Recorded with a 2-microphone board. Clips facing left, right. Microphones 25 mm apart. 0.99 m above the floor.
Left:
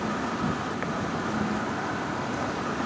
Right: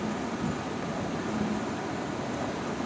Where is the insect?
75° left (ahead or behind).